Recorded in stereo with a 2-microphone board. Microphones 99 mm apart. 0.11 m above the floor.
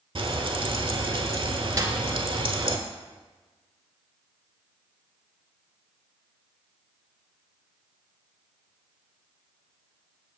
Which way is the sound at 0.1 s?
60° right (ahead or behind).